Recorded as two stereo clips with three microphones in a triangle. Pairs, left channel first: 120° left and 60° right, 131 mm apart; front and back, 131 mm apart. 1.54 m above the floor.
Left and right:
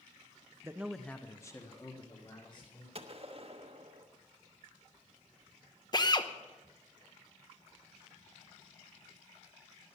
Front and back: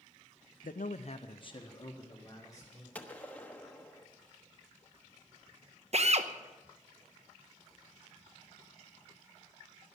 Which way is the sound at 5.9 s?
170° left.